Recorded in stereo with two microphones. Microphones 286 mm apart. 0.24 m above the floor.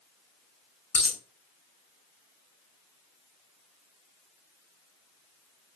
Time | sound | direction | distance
0.9 | a dropped coin | 55° left (ahead or behind) | 0.9 m